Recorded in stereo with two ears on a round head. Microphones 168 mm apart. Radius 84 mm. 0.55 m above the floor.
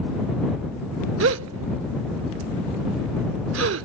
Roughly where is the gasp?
Right.